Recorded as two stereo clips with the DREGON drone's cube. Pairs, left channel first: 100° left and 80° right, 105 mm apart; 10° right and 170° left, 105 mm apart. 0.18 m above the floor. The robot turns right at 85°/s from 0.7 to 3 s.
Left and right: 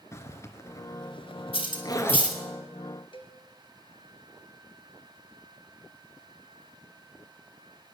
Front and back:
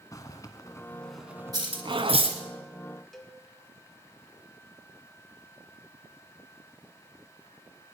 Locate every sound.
0.1 s a zipper: 40° left, 1.2 m; by 2.3 s 175° left, 1.2 m
1.5 s cutlery clinking: 120° left, 2.5 m; by 2.4 s 170° right, 2.5 m
3.1 s a cowbell: 75° left, 1.6 m